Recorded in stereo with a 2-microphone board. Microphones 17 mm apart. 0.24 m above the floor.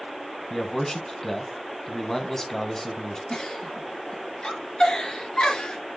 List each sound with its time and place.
0.5 s a man speaking: 25° left (ahead or behind), 1.8 m
3.3 s a giggle: 55° left (ahead or behind), 3.5 m